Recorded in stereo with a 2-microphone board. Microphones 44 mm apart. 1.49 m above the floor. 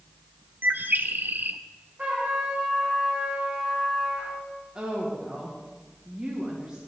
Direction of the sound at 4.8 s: 25° right (ahead or behind).